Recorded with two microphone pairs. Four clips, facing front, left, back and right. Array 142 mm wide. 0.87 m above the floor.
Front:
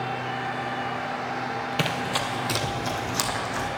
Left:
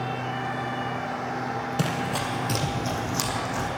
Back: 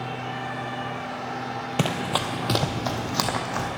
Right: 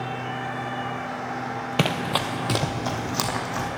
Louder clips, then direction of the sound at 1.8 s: Right 5 dB, back 4 dB; 110° right.